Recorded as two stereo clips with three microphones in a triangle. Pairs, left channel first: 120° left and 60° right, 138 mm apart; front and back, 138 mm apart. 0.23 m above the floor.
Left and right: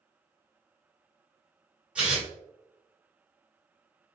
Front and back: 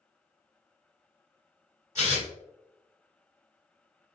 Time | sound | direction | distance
1.9 | tearing paper | 130° right | 1.9 m